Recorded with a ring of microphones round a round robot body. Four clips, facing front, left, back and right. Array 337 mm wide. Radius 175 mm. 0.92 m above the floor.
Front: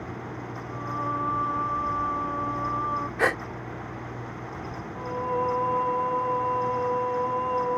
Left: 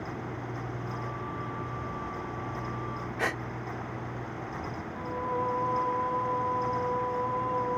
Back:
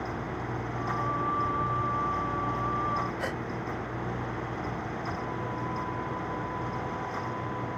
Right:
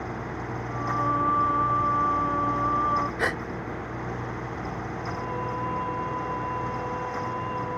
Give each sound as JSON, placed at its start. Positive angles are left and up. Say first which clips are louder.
{"t": 0.7, "sound": "singing", "louder": "right 11 dB, front 2 dB", "azimuth_deg": -70}
{"t": 3.2, "sound": "a gasp", "louder": "right 4 dB, front 8 dB", "azimuth_deg": -15}
{"t": 5.0, "sound": "singing", "louder": "left 3 dB, front 6 dB", "azimuth_deg": 10}